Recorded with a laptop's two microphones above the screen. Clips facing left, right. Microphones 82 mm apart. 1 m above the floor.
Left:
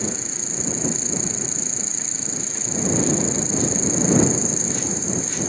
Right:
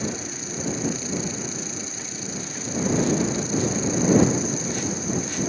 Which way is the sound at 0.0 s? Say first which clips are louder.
Even; 25° left (ahead or behind).